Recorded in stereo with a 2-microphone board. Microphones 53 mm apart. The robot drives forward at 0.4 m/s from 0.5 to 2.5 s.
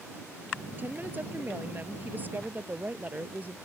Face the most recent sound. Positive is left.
turn(degrees=-35)  # may be behind; listen again after turning